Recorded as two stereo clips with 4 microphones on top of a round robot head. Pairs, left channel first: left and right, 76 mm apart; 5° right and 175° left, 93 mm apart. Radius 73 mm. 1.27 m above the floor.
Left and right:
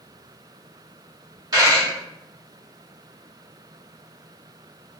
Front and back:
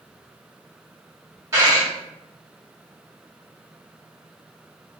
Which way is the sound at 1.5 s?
115° right.